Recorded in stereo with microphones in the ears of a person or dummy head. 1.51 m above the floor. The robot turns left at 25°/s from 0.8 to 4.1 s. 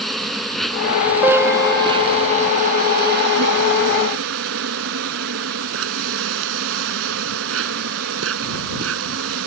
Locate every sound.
0.0 s an insect: straight ahead; by 9.5 s 80° right
1.2 s a piano: 170° right; by 2.6 s 155° left